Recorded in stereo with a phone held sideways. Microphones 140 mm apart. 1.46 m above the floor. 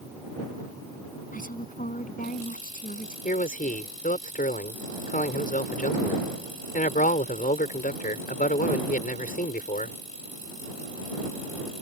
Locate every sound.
1.3 s a woman speaking: 70° left (ahead or behind); by 3.1 s 65° left (ahead or behind)
3.2 s a man speaking: 70° left (ahead or behind)